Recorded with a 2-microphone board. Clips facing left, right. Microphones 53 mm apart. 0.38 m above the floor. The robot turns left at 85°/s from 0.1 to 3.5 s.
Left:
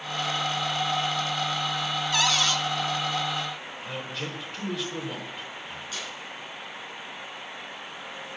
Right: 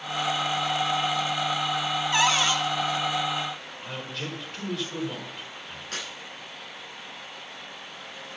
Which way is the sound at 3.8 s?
Centre (ahead or behind).